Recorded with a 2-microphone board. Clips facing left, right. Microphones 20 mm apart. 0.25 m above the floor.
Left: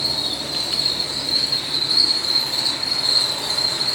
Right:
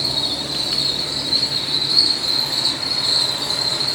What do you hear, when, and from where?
0.0 s an insect: 60° right (ahead or behind), 1.5 m